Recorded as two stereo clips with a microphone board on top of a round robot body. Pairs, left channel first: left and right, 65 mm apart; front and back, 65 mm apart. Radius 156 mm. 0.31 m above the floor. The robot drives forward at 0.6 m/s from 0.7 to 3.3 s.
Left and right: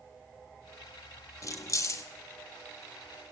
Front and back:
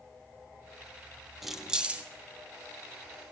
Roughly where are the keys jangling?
Left.